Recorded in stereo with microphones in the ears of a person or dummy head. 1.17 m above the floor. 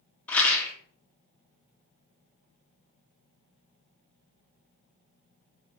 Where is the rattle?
10° left (ahead or behind), 1.2 m.